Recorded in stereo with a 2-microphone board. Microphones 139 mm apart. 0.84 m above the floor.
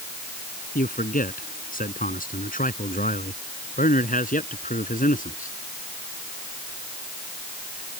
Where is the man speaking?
85° left; by 5.5 s 75° left (ahead or behind).